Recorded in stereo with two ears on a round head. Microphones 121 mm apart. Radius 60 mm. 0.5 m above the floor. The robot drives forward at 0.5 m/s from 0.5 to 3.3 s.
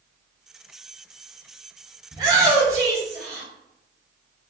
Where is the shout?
35° right (ahead or behind), 1.9 m; by 3.5 s 30° right (ahead or behind), 2.5 m.